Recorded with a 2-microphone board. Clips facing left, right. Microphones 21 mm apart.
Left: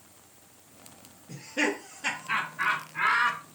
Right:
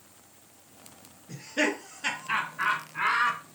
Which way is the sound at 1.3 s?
30° right (ahead or behind).